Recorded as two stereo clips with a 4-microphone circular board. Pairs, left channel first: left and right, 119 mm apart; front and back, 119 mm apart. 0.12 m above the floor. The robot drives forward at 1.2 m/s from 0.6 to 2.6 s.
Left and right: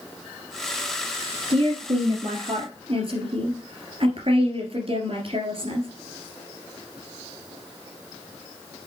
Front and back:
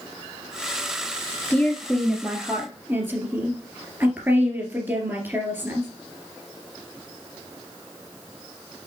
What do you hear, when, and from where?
1.5 s a woman speaking: 70° right, 2.5 m; by 5.9 s 110° right, 2.5 m